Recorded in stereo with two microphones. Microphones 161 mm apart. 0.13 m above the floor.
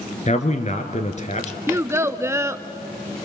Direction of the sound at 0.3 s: 45° left (ahead or behind).